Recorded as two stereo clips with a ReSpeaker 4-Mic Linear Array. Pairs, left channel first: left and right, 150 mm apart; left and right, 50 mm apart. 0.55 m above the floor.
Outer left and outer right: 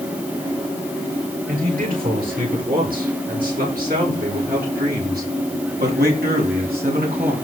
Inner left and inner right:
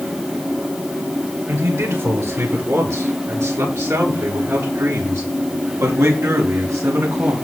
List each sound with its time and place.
1.5 s a man speaking: 70° right (ahead or behind), 9 m; by 7.4 s 80° right, 6.5 m